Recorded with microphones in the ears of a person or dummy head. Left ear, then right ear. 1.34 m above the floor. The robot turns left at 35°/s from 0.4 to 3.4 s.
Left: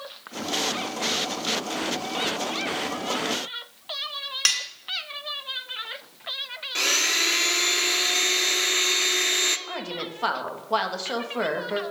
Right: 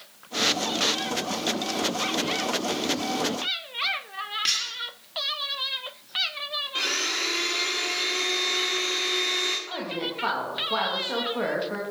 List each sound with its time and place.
4.5 s cutlery clinking: 40° left (ahead or behind), 2 m
6.8 s a blender: 30° left (ahead or behind), 1.1 m
9.7 s a woman speaking: 80° left, 2.5 m